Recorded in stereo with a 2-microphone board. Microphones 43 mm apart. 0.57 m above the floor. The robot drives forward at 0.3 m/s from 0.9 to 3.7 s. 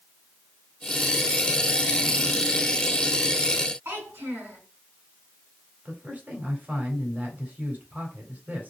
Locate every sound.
3.9 s a child speaking: 65° right (ahead or behind), 3.5 m
5.8 s a man speaking: 35° right (ahead or behind), 3 m